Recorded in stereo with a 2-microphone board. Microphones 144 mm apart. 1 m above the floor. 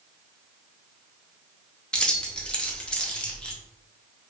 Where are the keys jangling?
5° left (ahead or behind), 0.7 m.